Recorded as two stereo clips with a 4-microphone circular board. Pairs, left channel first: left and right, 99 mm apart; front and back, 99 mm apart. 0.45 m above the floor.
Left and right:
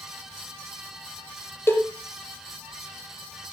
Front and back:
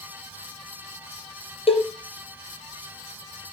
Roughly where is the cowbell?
Ahead.